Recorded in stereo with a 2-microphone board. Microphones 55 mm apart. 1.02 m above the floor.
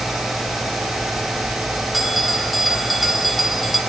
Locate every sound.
1.9 s a bell: centre (ahead or behind), 1.4 m